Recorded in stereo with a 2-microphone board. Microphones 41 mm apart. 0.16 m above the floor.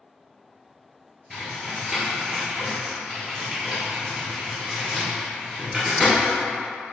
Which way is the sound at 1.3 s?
5° right (ahead or behind).